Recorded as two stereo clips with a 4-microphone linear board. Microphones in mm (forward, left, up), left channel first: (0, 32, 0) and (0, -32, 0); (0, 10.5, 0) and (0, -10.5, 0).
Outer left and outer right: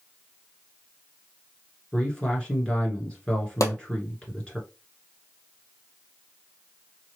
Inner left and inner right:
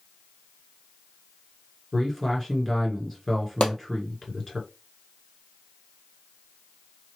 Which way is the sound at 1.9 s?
15° left (ahead or behind).